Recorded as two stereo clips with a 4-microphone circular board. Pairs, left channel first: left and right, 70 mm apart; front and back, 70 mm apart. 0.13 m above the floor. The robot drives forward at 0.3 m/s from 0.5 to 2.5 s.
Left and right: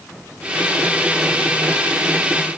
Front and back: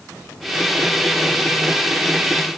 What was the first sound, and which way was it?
Only background noise.